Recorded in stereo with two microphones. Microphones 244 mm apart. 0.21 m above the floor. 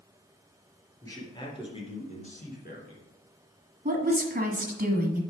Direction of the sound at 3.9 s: 35° right (ahead or behind).